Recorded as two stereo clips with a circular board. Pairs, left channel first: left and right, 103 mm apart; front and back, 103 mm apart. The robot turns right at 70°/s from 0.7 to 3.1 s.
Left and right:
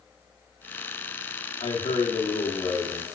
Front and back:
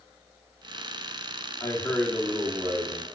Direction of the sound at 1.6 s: 55° left.